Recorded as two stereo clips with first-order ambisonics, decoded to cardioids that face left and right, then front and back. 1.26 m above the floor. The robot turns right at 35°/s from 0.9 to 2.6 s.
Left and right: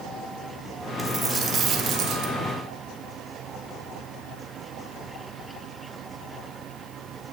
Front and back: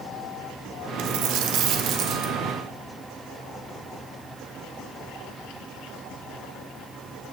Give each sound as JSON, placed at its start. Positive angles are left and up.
{"t": 1.0, "sound": "a dropped coin", "azimuth_deg": -170, "distance_m": 1.6}